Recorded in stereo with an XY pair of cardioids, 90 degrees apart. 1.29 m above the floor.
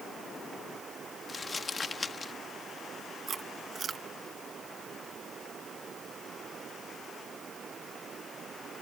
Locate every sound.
1.3 s crumpling: 35° left
3.3 s chewing: 50° right